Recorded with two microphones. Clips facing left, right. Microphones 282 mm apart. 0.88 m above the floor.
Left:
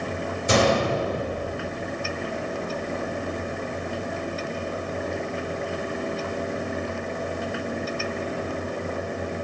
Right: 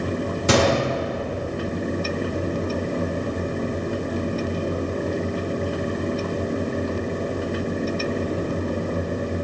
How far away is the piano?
I don't hear a piano.